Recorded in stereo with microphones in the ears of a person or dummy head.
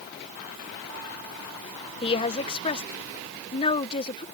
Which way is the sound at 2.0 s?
30° left (ahead or behind).